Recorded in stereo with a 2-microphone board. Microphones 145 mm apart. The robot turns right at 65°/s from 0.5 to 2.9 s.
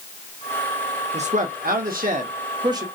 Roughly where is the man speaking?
Behind right.